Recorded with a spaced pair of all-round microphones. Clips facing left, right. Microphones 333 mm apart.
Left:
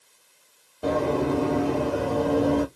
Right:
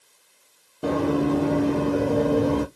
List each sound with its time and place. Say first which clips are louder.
0.8 s running footsteps: right 2 dB; 15° right (ahead or behind), 1.8 m; by 2.6 s 30° right (ahead or behind), 1.9 m